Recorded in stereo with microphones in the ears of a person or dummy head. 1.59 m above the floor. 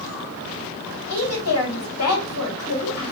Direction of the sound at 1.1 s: 75° left (ahead or behind).